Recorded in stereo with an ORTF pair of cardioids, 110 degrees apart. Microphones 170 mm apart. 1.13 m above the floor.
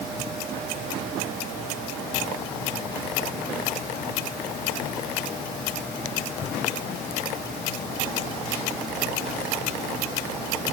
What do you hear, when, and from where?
Only background noise.